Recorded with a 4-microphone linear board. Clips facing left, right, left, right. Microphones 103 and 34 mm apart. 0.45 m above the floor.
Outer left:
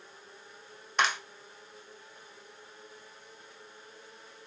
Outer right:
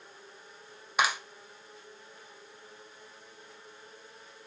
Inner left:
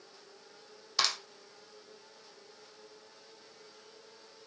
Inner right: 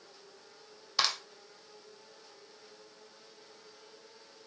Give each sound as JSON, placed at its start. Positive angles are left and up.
{"t": 1.0, "sound": "a clap", "side_deg": -10, "distance_m": 1.7}